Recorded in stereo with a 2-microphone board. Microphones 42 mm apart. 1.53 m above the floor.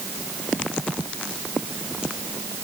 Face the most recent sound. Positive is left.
No sound to turn to.